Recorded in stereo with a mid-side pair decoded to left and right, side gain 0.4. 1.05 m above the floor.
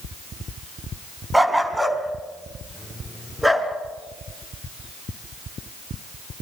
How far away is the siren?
I don't hear a siren.